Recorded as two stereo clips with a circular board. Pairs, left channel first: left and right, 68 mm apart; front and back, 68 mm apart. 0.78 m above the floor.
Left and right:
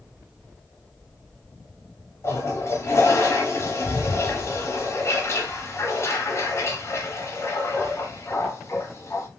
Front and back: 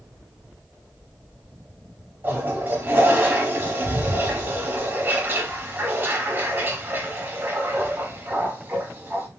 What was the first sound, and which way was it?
A toilet flushing, 125° left.